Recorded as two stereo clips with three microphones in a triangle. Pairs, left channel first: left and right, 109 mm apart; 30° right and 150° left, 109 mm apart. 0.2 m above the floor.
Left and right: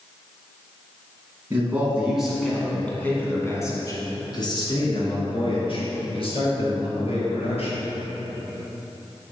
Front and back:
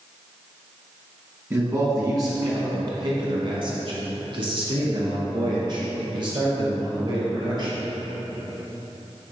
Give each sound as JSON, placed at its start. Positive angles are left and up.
{"t": 1.5, "sound": "a man speaking", "azimuth_deg": -155, "distance_m": 1.6}